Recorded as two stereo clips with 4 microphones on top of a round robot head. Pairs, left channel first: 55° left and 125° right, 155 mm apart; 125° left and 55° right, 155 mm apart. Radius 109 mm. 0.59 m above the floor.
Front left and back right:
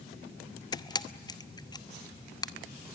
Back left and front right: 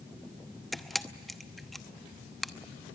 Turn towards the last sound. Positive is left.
turn(degrees=35)